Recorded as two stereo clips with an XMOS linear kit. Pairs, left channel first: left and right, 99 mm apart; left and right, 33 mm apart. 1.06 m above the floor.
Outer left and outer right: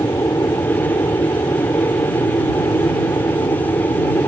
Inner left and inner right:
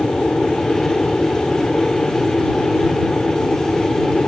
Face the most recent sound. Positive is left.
turn(degrees=35)  # may be behind; listen again after turning